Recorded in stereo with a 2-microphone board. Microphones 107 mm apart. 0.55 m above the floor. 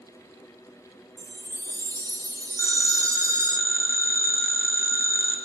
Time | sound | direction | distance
1.2 | a chime | 35° right (ahead or behind) | 0.7 m
2.6 | a phone ringing | 25° right (ahead or behind) | 4 m